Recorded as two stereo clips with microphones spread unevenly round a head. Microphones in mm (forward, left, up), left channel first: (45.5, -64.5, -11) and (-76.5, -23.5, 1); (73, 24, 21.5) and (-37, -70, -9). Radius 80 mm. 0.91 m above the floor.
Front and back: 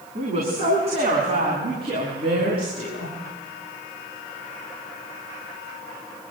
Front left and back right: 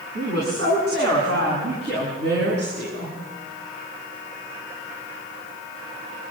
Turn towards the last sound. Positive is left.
turn(degrees=-150)